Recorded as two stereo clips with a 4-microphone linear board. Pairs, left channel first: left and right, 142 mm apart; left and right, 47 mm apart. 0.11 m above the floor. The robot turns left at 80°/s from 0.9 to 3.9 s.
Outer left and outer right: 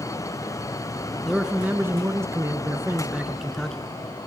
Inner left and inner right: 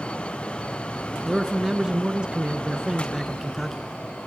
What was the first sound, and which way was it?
A man speaking, centre (ahead or behind).